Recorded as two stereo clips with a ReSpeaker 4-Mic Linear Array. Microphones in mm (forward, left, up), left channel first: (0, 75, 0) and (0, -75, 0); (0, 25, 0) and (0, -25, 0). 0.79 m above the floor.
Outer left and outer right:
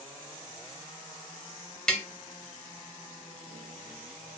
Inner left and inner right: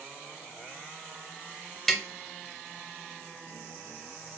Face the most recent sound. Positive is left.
turn(degrees=5)  # may be behind; listen again after turning